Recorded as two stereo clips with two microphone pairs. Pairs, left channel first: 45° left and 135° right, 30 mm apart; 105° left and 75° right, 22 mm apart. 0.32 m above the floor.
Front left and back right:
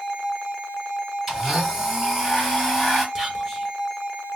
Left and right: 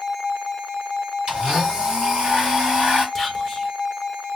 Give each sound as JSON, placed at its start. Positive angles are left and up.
{"t": 1.3, "sound": "a blender", "azimuth_deg": -60, "distance_m": 2.5}
{"t": 3.1, "sound": "whispering", "azimuth_deg": -165, "distance_m": 1.4}